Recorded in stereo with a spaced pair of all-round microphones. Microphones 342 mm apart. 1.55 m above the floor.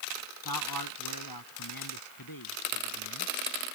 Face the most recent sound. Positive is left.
turn(degrees=80)